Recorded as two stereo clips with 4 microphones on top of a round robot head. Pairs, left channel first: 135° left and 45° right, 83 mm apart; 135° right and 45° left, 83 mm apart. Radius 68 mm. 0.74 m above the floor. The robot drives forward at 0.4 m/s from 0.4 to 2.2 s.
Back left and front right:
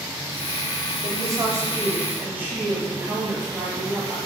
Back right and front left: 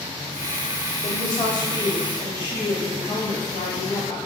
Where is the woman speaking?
90° right, 1.2 m; by 4.2 s 115° right, 1.3 m.